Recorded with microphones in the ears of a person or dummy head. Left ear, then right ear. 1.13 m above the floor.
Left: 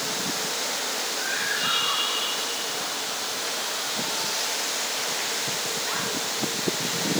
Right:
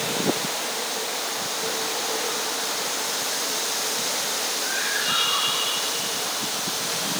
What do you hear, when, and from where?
Only background noise.